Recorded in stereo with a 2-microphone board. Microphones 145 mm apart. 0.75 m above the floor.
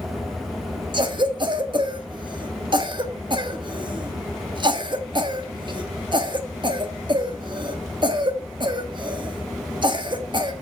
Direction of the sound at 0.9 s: 30° right (ahead or behind).